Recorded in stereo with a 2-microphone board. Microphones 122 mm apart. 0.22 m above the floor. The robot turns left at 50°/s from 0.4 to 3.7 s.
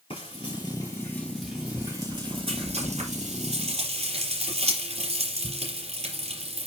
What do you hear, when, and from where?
0.1 s frying: 50° left (ahead or behind), 5.5 m; by 6.7 s 65° right (ahead or behind), 5.5 m